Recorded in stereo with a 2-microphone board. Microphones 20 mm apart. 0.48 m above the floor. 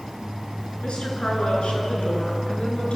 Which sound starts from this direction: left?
A woman speaking, at 0.8 s.